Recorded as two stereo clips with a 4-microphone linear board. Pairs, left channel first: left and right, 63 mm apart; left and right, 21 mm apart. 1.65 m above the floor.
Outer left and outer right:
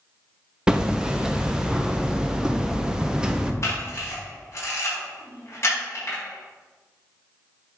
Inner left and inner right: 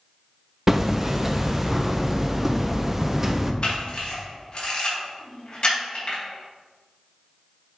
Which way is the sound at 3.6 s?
45° left (ahead or behind).